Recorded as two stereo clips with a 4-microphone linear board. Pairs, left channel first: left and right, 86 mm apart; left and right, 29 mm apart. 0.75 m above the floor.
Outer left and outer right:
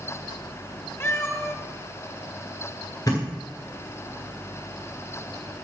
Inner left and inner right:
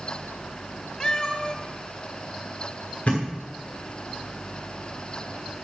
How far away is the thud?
About 5.5 m.